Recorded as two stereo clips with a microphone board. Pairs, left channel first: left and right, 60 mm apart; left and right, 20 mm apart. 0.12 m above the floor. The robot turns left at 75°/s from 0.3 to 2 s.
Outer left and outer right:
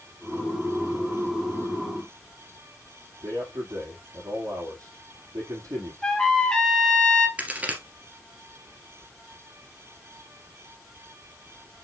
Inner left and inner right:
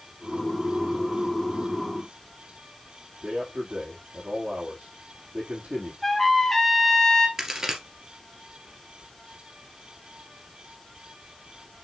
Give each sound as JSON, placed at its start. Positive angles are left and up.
{"t": 3.2, "sound": "a man speaking", "side_deg": -70, "distance_m": 5.0}
{"t": 6.0, "sound": "a trumpet", "side_deg": 10, "distance_m": 1.8}
{"t": 7.4, "sound": "a crack", "side_deg": -25, "distance_m": 2.0}